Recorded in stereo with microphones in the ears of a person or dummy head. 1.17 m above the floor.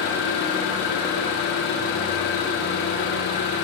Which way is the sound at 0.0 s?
65° left (ahead or behind).